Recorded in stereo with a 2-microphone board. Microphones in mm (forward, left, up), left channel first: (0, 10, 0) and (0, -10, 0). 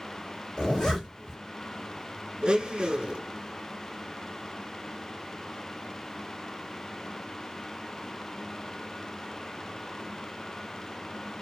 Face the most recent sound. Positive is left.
turn(degrees=-50)  # may be behind; listen again after turning